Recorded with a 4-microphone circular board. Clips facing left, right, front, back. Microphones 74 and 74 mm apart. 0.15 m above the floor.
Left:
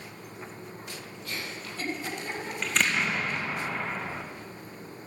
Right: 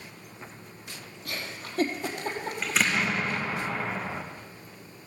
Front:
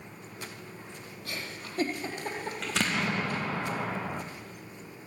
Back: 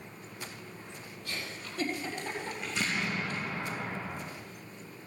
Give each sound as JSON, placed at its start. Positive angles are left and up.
{"t": 1.2, "sound": "a giggle", "azimuth_deg": -50, "distance_m": 4.0}
{"t": 2.6, "sound": "an explosion", "azimuth_deg": -5, "distance_m": 2.0}